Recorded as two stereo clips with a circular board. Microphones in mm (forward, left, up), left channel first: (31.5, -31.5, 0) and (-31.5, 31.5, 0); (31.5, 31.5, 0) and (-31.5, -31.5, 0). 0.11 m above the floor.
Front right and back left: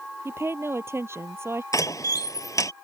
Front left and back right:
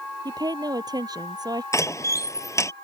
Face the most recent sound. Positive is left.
turn(degrees=0)